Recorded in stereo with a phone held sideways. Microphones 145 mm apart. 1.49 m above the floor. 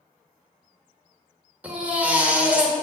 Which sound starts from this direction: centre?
A baby crying, at 1.6 s.